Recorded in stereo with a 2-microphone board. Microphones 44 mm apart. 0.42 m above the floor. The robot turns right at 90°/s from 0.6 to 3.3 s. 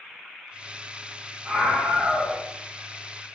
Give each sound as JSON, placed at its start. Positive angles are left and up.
{"t": 1.4, "sound": "a scream", "azimuth_deg": -145, "distance_m": 2.0}